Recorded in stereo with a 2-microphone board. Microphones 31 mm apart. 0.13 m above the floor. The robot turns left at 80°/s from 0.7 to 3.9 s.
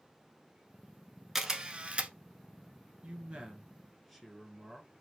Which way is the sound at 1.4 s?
15° right (ahead or behind).